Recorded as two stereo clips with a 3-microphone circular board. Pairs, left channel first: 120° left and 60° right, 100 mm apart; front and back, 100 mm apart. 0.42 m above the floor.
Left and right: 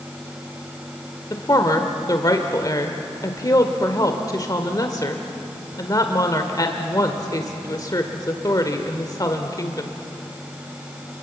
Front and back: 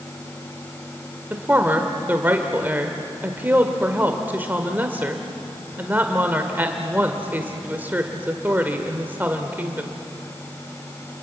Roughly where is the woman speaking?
Behind left.